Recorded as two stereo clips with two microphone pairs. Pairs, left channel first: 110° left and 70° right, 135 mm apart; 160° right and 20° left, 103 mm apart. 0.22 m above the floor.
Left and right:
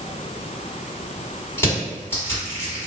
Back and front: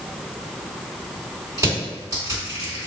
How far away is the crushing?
About 2.0 m.